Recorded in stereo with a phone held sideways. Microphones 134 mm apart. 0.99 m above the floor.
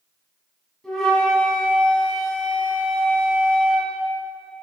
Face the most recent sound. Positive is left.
turn(degrees=5)  # may be behind; listen again after turning